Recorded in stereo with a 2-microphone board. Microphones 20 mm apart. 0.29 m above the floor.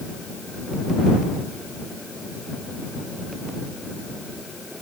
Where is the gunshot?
No gunshot in this recording.